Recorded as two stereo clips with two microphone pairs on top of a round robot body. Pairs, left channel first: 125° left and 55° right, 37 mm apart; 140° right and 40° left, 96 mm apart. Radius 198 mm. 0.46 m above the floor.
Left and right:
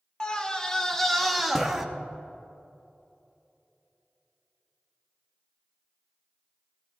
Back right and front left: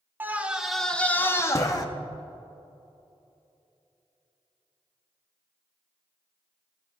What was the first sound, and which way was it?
A scream, 100° left.